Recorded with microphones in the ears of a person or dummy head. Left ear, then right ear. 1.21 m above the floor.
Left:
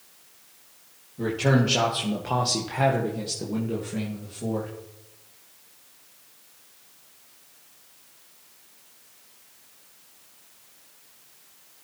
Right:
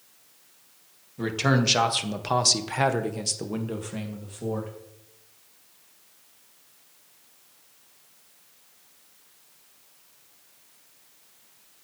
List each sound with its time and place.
1.2 s a man speaking: 50° right (ahead or behind), 2 m; by 4.7 s 20° right (ahead or behind), 2.5 m